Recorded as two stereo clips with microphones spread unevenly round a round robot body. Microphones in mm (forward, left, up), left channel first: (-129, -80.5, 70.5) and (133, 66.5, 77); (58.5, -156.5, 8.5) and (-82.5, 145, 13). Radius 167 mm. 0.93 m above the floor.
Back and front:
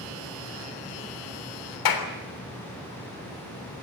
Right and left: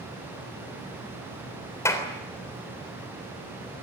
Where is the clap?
145° right, 3.5 m.